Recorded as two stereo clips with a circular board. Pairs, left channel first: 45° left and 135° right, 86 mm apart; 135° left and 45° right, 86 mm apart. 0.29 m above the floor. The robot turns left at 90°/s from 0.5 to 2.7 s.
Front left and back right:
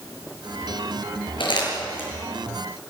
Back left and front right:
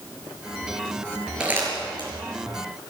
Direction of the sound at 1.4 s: 35° left.